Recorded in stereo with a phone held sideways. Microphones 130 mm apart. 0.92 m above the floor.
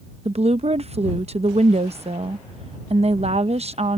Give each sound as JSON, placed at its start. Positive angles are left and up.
{"t": 0.2, "sound": "a woman speaking", "side_deg": -55}